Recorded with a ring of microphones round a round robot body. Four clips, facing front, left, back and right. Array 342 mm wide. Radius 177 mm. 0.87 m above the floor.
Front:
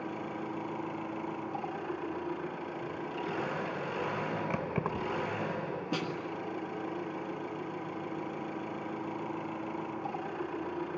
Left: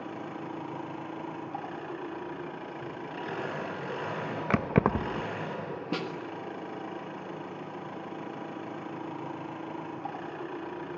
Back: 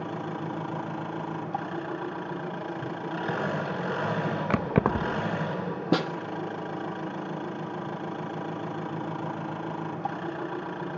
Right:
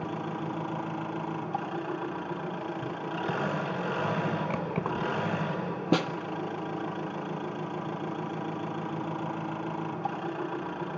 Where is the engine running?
145° right, 6 m.